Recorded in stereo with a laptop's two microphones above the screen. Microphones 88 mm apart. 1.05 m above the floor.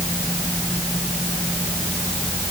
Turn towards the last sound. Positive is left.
No sound to turn to.